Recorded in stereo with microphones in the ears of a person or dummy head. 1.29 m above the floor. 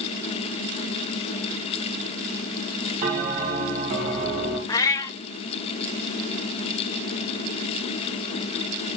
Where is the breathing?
I don't hear breathing.